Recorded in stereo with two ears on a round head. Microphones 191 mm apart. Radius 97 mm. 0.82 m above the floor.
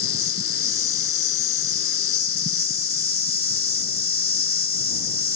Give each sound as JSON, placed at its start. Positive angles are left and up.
{"t": 0.0, "sound": "an insect", "side_deg": 50}